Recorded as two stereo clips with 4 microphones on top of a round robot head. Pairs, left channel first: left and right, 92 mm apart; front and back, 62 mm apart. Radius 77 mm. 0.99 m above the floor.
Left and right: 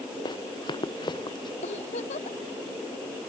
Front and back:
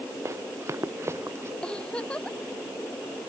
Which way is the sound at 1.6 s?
75° left.